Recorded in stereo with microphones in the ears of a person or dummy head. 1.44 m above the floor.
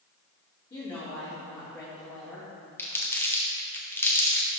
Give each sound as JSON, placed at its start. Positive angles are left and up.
{"t": 0.7, "sound": "a woman speaking", "side_deg": 25, "distance_m": 2.5}
{"t": 2.8, "sound": "crumpling", "side_deg": 10, "distance_m": 0.9}